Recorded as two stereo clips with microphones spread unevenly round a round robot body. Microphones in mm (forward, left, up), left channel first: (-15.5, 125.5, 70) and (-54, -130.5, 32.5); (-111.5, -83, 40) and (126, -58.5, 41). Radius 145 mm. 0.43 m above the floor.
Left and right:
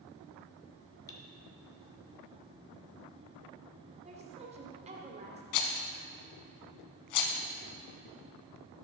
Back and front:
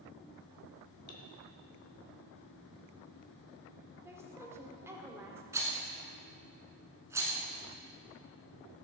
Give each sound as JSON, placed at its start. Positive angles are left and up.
{"t": 1.1, "sound": "cutlery clinking", "azimuth_deg": 160, "distance_m": 1.4}
{"t": 4.0, "sound": "a woman speaking", "azimuth_deg": -65, "distance_m": 1.7}
{"t": 5.5, "sound": "a rattle", "azimuth_deg": 85, "distance_m": 0.8}